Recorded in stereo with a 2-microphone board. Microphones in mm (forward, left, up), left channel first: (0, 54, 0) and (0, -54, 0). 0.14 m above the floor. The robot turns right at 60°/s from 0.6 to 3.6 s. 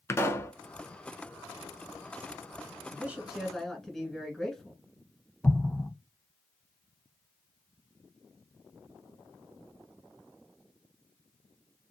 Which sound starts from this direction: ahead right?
A man speaking, at 2.9 s.